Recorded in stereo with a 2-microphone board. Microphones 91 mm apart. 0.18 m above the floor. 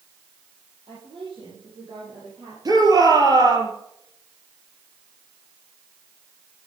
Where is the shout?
45° right (ahead or behind), 5 m.